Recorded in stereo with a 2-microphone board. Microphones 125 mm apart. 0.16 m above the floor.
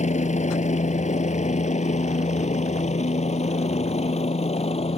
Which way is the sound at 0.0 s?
65° left (ahead or behind).